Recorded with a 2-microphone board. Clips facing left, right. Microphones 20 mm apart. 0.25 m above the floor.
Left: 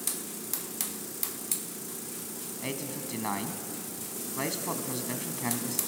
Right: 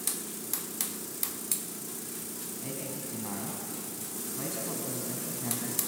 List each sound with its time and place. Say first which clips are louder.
2.6 s a man speaking: left 4 dB; 50° left (ahead or behind), 1.7 m